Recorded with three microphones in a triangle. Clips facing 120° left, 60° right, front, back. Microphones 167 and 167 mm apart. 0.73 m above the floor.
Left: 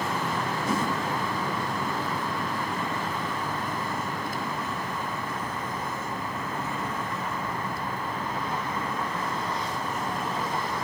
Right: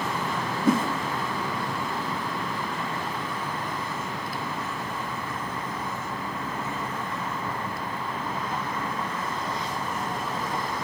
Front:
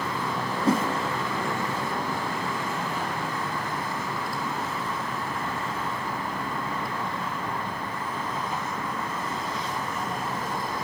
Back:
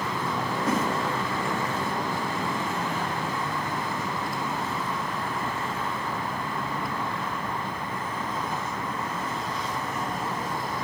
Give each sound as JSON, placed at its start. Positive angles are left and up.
{"t": 0.7, "sound": "a whoosh", "azimuth_deg": -55, "distance_m": 1.0}